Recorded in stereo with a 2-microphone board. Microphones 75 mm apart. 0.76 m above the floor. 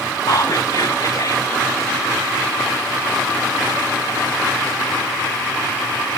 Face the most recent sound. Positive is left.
turn(degrees=55)  # may be behind; listen again after turning